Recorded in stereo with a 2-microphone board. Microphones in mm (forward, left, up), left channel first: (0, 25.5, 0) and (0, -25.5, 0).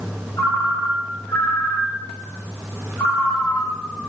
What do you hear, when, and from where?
0.4 s a ringtone: 55° left (ahead or behind), 3.5 m